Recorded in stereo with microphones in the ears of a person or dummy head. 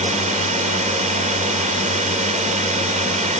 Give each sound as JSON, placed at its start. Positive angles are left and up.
{"t": 0.0, "sound": "a drone", "side_deg": -30}